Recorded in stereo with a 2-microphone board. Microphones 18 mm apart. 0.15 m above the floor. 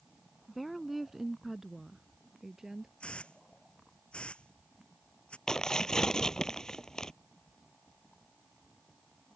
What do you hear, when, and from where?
0.5 s a woman speaking: centre (ahead or behind); by 2.9 s 30° right (ahead or behind)
3.0 s a hiss: 80° left
5.5 s tearing paper: 30° left (ahead or behind)